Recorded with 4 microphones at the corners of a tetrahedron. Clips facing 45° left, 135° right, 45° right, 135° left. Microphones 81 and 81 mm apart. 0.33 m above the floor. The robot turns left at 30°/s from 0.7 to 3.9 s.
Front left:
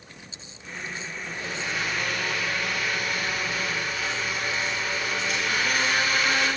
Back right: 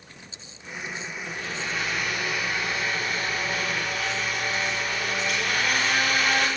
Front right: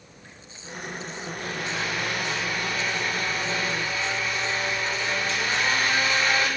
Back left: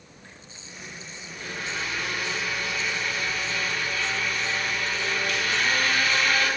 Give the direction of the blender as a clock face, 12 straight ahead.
1 o'clock.